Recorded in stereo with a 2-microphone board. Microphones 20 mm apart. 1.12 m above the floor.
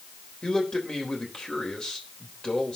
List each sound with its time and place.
0.4 s a man speaking: 45° left (ahead or behind), 3.5 m